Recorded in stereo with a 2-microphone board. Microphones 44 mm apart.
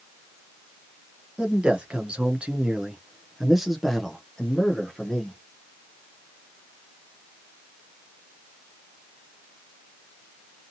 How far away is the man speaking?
About 1.1 m.